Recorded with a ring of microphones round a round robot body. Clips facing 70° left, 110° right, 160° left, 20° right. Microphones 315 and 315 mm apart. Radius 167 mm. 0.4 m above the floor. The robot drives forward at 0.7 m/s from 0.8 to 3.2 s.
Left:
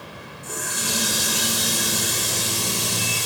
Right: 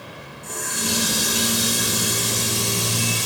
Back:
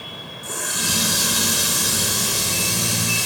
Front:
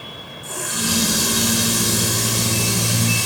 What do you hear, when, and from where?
0.4 s a running tap: 145° left, 0.8 m; by 3.3 s 170° left, 2.5 m